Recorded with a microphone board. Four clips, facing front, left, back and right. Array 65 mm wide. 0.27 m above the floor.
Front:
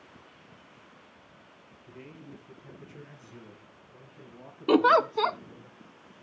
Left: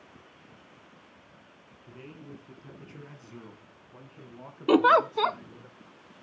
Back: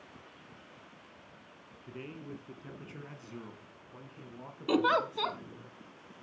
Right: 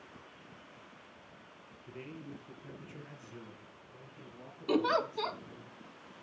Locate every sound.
1.9 s a man speaking: straight behind, 4 m; by 5.7 s 100° left, 4.5 m
4.7 s a giggle: 50° left, 0.7 m